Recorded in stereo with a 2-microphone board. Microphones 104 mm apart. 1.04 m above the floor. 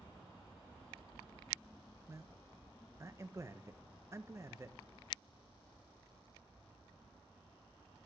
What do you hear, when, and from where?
2.1 s a man speaking: 25° right (ahead or behind), 0.9 m